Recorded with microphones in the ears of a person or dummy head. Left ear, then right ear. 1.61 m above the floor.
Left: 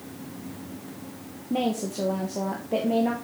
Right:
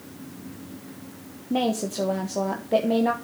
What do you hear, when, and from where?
1.5 s a woman speaking: 20° right (ahead or behind), 0.9 m